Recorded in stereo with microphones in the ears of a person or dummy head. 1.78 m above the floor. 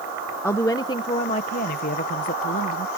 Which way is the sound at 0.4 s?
10° left (ahead or behind).